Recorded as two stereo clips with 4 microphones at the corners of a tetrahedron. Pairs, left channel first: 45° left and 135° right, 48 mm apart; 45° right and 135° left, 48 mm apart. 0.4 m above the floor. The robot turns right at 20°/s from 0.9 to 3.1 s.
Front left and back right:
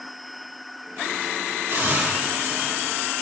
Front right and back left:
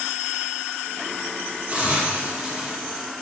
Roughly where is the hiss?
Behind.